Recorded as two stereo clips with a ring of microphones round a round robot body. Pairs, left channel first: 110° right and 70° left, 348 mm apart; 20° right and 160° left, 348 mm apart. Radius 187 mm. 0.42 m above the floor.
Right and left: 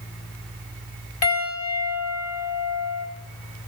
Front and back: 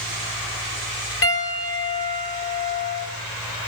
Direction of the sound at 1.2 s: 75° right.